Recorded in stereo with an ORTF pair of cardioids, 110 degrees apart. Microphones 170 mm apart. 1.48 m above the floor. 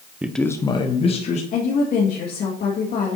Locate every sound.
0.2 s a man speaking: 10° right, 0.5 m; by 1.4 s 40° left, 1.4 m
1.5 s a woman speaking: 60° left, 1.8 m